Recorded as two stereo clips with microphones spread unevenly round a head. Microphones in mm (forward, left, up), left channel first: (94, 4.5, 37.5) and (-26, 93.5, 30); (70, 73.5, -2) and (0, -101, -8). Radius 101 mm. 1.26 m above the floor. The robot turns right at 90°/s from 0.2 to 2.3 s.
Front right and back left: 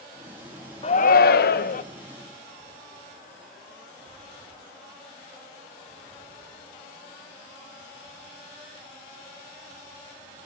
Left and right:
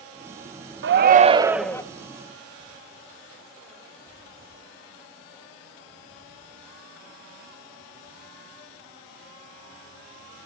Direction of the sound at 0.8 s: 95° right.